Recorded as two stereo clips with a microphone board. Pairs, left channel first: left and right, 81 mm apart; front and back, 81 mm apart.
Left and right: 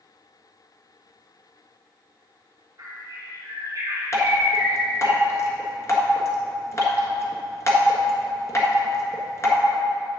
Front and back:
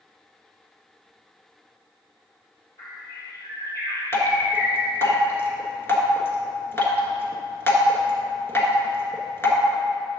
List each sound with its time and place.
2.8 s a bird: 45° right, 2.5 m
4.1 s dripping: 50° left, 1.4 m